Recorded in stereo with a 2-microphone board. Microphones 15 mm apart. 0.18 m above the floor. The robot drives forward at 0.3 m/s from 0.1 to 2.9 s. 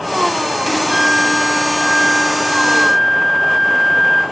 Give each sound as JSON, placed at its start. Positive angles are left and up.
{"t": 0.9, "sound": "a flute", "side_deg": -25, "distance_m": 0.7}